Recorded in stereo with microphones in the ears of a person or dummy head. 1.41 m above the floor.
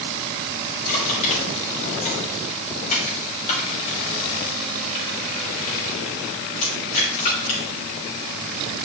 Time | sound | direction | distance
0.9 | crushing | 40° left (ahead or behind) | 3.5 m